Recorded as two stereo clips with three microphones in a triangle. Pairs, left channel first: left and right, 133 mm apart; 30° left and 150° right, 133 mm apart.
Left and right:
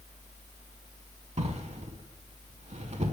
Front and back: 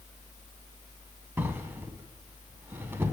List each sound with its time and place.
1.4 s a drawer: 80° right, 0.5 m